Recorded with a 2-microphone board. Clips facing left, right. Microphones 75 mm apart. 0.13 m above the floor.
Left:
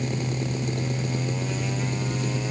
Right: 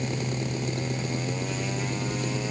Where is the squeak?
I don't hear a squeak.